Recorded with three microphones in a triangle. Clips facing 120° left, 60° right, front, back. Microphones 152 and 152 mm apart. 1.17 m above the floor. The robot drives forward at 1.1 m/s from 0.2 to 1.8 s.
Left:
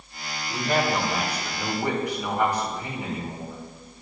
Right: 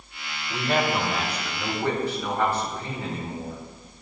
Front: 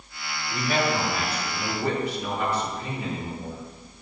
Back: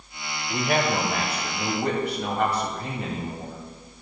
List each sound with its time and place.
0.5 s a man speaking: 145° right, 1.1 m; by 4.0 s 165° right, 2.5 m